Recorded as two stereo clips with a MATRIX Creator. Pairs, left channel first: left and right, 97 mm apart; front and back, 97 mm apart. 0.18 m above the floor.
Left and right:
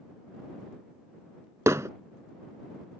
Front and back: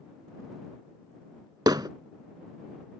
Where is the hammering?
145° right.